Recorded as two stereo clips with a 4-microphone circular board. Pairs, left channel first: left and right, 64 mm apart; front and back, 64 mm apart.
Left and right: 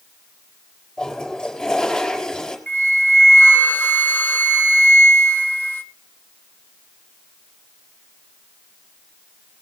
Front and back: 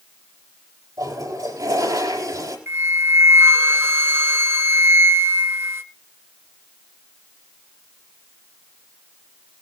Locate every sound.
1.0 s a toilet flushing: 170° left, 4 m
2.7 s a flute: 145° left, 1.2 m